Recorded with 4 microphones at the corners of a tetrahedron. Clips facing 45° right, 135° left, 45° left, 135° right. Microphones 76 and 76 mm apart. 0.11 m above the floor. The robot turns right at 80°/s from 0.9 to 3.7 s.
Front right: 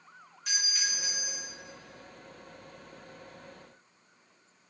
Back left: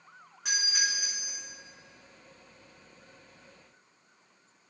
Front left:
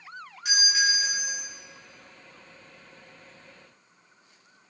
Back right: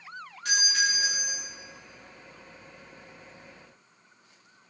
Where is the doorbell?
130° left, 6.5 m; by 1.5 s 175° left, 6.5 m.